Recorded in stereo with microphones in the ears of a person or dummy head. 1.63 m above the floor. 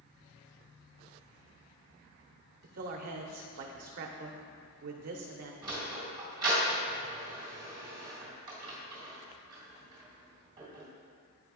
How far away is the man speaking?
About 0.8 m.